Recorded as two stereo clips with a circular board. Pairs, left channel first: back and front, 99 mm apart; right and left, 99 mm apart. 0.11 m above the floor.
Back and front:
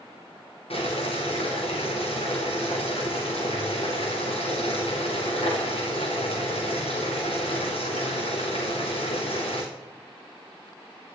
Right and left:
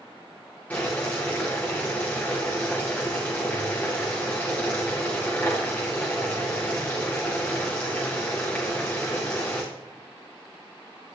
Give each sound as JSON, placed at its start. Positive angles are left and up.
{"t": 0.7, "sound": "boiling", "azimuth_deg": -165, "distance_m": 5.0}